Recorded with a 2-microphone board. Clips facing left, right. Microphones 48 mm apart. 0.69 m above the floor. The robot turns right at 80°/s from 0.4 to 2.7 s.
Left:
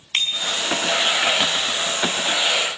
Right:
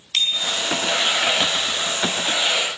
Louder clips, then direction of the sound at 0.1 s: Even; 35° left (ahead or behind).